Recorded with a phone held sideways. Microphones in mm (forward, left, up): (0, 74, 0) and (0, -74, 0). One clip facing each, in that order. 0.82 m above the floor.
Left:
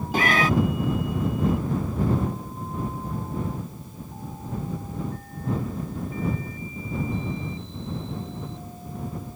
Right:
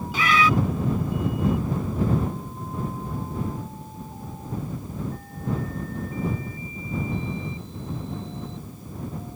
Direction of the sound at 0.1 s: 50° left (ahead or behind).